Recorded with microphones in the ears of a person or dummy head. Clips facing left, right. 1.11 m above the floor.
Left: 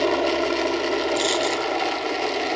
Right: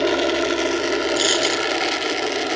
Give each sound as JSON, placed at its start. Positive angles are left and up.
{"t": 0.0, "sound": "a helicopter", "side_deg": -10}
{"t": 1.2, "sound": "a dropped coin", "side_deg": -15}